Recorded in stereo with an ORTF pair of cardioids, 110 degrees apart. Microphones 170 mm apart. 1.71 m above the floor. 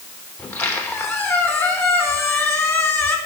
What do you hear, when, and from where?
0.4 s a squeak: 15° left, 3 m